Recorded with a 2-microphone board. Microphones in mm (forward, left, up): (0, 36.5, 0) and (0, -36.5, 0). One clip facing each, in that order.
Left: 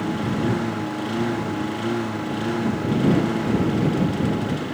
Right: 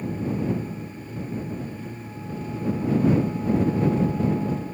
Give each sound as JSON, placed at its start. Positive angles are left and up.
{"t": 0.0, "sound": "a lawn mower", "side_deg": 75}